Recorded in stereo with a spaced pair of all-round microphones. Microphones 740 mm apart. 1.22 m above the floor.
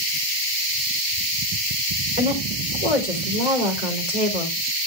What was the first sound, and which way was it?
A woman speaking, 65° right (ahead or behind).